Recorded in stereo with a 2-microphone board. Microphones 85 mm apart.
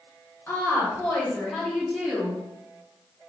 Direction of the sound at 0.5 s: 25° left (ahead or behind).